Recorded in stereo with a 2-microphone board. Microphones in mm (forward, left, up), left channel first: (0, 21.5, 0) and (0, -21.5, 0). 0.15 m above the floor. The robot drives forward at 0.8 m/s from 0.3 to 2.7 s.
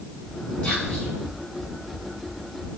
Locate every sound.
0.6 s whispering: 35° left (ahead or behind), 5 m